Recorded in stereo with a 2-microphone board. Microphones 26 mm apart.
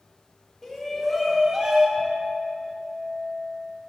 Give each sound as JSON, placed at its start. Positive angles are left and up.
{"t": 0.6, "sound": "a shout", "side_deg": 10, "distance_m": 1.4}
{"t": 2.0, "sound": "a clink", "side_deg": -15, "distance_m": 2.5}